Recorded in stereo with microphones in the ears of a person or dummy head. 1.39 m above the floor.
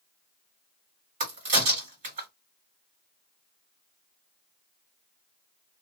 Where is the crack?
40° right (ahead or behind), 1.6 m.